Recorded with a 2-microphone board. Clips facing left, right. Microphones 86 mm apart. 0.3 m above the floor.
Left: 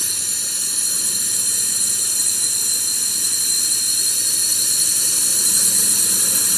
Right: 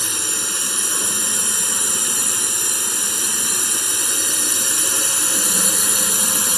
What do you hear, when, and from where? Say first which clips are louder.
0.0 s a drone: right 8 dB; 65° right (ahead or behind)